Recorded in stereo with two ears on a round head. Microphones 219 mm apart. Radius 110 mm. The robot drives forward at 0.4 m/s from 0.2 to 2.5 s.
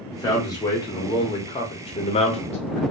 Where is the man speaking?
15° left (ahead or behind), 1.1 m; by 2.8 s 25° left (ahead or behind), 0.6 m.